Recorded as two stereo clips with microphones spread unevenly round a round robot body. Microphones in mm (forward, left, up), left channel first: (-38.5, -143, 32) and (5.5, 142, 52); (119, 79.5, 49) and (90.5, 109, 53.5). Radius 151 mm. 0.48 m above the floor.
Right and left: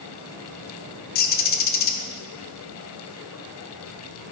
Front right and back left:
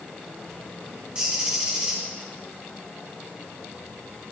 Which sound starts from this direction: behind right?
A bird, at 1.1 s.